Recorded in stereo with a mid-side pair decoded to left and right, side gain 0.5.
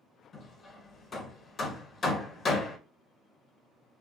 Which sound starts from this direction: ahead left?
Hammering, at 0.3 s.